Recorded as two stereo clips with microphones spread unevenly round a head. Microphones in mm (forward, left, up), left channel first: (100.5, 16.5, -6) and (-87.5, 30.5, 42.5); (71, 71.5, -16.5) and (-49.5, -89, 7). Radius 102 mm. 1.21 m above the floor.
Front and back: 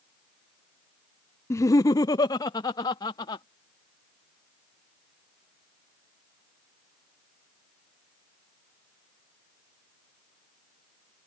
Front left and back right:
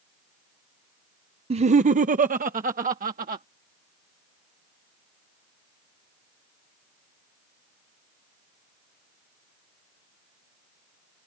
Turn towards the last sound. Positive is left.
turn(degrees=-75)